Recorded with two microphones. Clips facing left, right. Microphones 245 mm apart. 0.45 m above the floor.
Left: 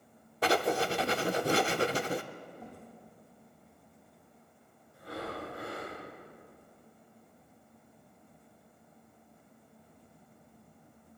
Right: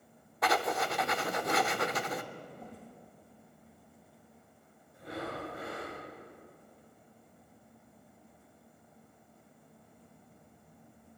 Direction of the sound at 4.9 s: 20° right (ahead or behind).